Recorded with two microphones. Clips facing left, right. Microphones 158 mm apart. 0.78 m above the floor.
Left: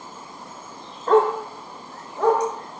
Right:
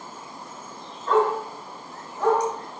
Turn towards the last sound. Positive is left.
turn(degrees=85)